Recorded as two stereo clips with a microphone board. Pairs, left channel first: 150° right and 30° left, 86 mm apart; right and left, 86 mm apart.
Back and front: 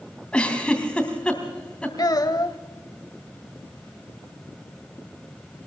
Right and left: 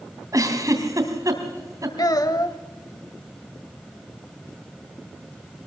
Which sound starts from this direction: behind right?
A child speaking, at 2.0 s.